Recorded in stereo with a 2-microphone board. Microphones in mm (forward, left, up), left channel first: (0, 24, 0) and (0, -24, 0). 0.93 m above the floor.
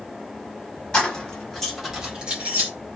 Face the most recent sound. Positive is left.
turn(degrees=-40)  # may be behind; listen again after turning